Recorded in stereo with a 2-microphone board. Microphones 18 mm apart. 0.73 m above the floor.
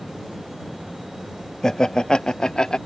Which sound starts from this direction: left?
Laughter, at 1.6 s.